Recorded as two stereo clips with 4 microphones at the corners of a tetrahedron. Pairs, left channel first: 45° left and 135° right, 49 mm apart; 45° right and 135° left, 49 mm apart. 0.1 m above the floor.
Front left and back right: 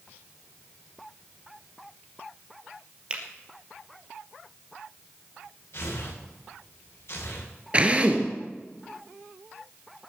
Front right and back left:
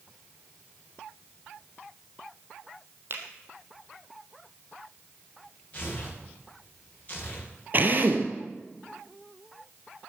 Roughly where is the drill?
Behind.